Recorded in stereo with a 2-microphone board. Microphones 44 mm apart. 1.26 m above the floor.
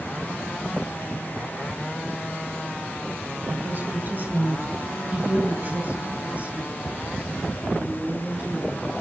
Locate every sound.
3.5 s a woman speaking: 55° right (ahead or behind), 3 m; by 8.9 s 35° right (ahead or behind), 7.5 m